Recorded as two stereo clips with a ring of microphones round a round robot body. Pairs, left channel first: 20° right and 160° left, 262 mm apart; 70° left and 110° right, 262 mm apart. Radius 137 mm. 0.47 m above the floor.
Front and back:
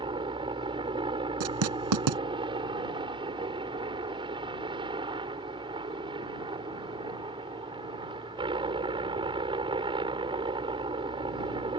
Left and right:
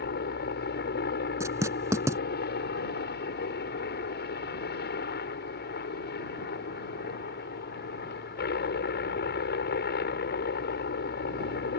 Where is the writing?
170° left.